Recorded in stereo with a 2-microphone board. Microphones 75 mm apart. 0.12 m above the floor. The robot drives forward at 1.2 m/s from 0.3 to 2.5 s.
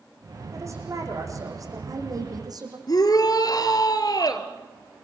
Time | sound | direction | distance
0.5 | a woman speaking | 40° right (ahead or behind) | 7 m
2.9 | a shout | 55° left (ahead or behind) | 2.5 m